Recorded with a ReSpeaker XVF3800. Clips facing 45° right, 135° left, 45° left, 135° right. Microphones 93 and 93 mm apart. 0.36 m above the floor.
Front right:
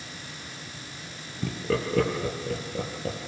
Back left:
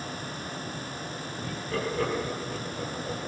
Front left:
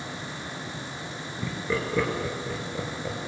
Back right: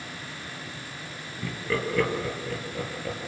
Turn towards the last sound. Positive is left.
turn(degrees=-30)